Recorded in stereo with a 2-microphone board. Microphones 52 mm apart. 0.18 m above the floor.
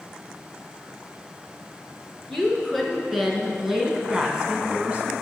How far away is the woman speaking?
About 2.5 m.